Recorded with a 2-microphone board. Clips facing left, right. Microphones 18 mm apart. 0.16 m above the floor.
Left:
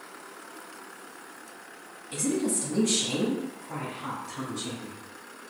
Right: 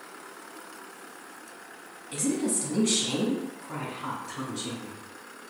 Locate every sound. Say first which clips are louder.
2.1 s a woman speaking: even; 10° right (ahead or behind), 1.1 m; by 5.0 s 40° right (ahead or behind), 1.7 m